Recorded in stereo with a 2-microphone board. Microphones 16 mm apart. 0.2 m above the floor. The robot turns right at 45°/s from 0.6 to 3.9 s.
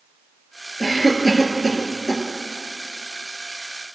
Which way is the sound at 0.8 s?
25° left (ahead or behind).